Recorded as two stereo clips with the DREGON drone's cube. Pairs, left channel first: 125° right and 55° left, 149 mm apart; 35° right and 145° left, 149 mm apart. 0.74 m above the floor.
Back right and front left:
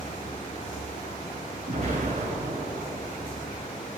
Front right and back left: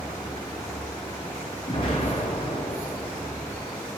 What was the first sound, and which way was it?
An explosion, 20° left.